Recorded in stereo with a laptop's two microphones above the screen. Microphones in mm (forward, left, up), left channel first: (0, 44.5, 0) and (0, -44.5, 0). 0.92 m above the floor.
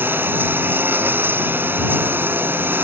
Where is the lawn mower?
25° right (ahead or behind).